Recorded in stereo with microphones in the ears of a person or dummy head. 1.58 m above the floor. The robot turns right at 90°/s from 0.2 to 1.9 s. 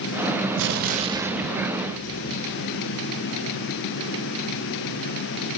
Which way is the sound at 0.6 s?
70° right.